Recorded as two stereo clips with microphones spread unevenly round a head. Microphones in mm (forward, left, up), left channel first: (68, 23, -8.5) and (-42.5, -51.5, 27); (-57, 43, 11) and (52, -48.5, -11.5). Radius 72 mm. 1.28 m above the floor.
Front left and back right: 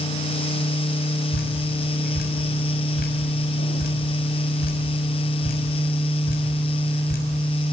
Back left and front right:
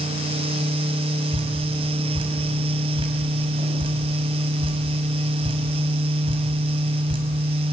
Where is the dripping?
20° left, 6.5 m.